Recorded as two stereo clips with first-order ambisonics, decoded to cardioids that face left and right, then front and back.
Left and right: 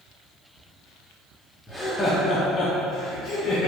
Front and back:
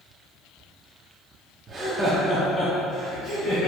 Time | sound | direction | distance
1.7 | laughter | 170° right | 0.7 m